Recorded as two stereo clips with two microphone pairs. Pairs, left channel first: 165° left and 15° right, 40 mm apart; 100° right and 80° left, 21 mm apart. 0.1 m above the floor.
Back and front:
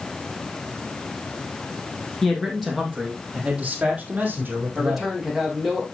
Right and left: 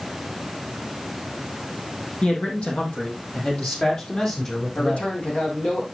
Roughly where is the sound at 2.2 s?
Right.